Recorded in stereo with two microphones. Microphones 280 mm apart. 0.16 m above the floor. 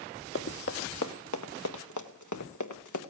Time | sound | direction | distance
0.3 | running footsteps | 50° left (ahead or behind) | 1.3 m